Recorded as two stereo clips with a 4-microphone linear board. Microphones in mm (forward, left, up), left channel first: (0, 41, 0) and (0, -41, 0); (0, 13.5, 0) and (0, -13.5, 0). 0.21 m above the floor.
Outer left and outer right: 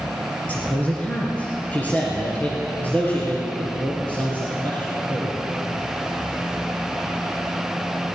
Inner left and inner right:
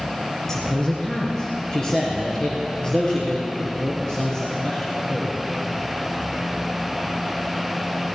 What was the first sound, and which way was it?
A man speaking, 15° left (ahead or behind).